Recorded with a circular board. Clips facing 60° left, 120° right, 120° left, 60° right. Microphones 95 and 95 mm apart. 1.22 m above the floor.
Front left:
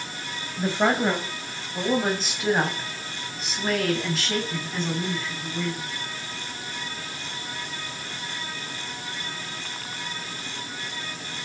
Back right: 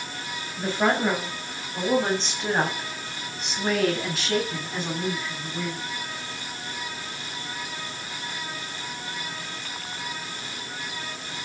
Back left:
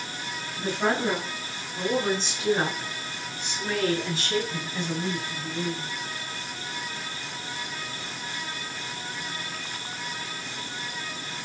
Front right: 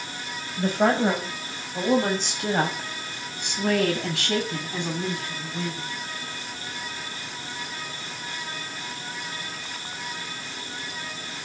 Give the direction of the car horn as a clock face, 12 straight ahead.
No car horn in this recording.